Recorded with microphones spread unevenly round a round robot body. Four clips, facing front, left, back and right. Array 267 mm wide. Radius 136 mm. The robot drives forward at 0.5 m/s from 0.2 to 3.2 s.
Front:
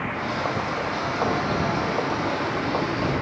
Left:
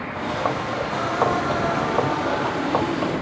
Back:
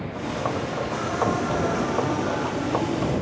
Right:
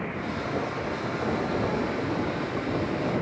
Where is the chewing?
I don't hear chewing.